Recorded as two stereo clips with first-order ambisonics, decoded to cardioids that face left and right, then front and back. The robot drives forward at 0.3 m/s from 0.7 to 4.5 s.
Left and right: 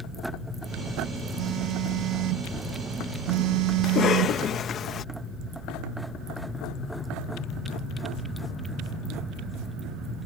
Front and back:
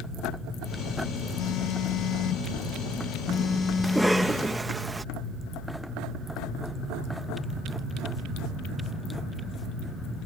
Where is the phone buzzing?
45° right; by 4.4 s 95° right.